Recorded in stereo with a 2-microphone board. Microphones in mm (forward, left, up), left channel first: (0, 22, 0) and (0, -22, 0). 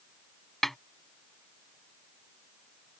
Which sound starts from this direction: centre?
A snare drum, at 0.6 s.